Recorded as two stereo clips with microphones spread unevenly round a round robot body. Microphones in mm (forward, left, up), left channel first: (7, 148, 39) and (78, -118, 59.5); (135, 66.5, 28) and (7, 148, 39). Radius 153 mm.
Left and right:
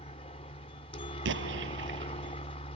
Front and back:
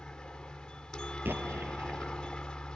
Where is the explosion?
130° right.